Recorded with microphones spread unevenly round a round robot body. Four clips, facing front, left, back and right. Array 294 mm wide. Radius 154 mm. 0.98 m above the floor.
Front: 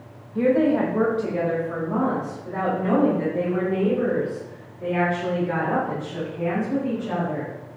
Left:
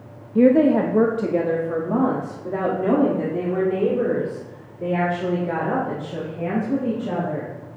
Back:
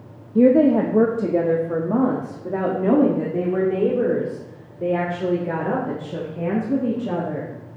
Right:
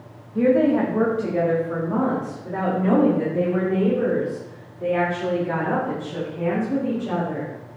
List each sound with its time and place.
0.3 s a woman speaking: 150° left, 1.2 m; by 7.5 s 165° left, 5 m